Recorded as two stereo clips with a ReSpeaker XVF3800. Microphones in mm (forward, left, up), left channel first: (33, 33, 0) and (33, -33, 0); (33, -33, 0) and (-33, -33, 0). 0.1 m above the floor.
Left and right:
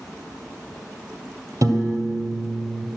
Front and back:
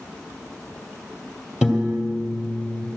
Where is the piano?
105° right, 2 m.